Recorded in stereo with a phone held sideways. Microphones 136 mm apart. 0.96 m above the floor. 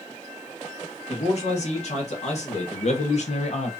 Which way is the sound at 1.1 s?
55° left (ahead or behind).